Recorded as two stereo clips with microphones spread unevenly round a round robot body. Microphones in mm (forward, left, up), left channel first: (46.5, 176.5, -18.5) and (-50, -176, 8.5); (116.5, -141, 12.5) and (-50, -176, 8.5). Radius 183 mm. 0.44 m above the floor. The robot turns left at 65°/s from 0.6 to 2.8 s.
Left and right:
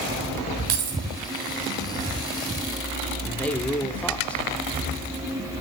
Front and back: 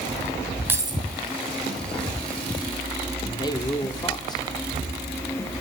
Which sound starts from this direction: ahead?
A man speaking, at 3.2 s.